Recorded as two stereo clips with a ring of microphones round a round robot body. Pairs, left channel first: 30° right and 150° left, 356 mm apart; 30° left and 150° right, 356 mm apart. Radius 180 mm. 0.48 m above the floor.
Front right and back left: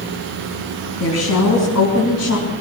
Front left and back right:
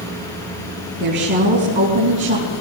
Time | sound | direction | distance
1.0 | a woman speaking | 80° right | 5.5 m